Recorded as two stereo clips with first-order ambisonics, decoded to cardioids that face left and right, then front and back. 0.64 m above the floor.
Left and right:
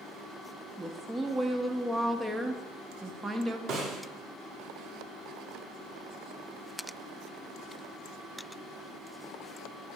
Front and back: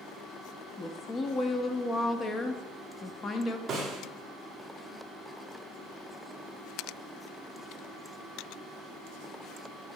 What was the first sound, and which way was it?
A woman speaking, 30° right.